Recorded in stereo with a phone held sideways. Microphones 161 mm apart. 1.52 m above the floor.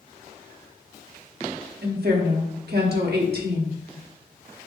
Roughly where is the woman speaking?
Right.